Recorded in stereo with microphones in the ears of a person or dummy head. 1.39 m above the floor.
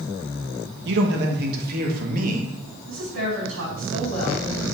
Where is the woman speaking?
70° right (ahead or behind), 4 m.